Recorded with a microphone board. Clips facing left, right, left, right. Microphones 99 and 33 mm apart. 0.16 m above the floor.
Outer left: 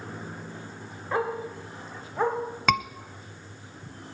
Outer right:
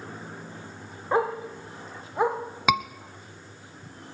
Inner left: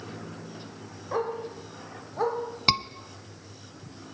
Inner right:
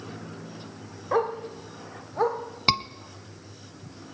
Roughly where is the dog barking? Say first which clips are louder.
Outer right 3 dB, inner right 4 dB; right.